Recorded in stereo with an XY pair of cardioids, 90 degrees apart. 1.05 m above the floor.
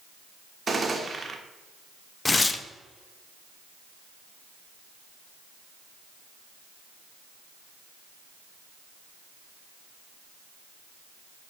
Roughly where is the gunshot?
Ahead right.